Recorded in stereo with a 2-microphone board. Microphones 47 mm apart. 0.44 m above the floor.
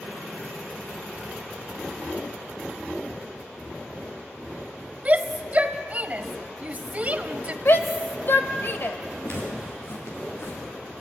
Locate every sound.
5.0 s a shout: 30° right (ahead or behind), 1.9 m
7.7 s a shout: 55° left (ahead or behind), 1.9 m
9.2 s footsteps: 65° left (ahead or behind), 7 m